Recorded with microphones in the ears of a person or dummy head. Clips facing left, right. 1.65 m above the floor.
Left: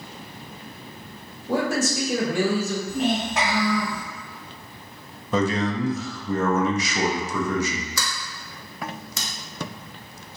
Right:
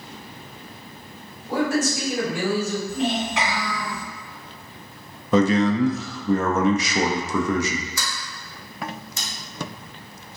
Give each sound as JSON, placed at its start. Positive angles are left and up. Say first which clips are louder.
{"t": 1.5, "sound": "a man speaking", "louder": "right 1 dB", "side_deg": 85, "distance_m": 1.7}
{"t": 2.9, "sound": "a child speaking", "louder": "even", "side_deg": 40, "distance_m": 1.9}
{"t": 5.3, "sound": "a man speaking", "louder": "right 5 dB", "side_deg": -60, "distance_m": 0.6}
{"t": 8.0, "sound": "a sliding door", "louder": "left 1 dB", "side_deg": 65, "distance_m": 0.6}